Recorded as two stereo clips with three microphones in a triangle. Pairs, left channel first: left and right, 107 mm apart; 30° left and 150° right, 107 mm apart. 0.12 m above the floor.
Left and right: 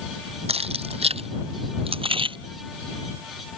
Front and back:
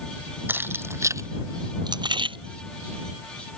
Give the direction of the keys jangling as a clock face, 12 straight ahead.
3 o'clock.